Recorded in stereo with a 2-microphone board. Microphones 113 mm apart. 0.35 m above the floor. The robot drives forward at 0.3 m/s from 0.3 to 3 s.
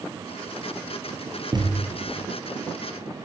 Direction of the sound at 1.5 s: 40° right (ahead or behind).